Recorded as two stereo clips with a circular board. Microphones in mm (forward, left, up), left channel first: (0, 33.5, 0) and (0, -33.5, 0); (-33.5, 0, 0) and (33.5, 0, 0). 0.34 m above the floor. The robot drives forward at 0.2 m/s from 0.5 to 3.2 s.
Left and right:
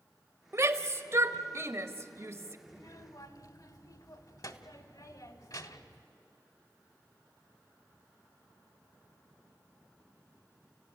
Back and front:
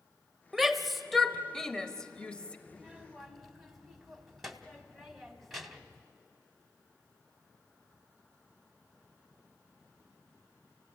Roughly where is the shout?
Right.